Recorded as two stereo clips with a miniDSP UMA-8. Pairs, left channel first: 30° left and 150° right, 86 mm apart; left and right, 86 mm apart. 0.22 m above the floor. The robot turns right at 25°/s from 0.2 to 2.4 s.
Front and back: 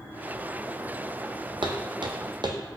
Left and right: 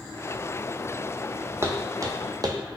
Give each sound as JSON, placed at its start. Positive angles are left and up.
{"t": 1.6, "sound": "footsteps", "azimuth_deg": -150, "distance_m": 0.6}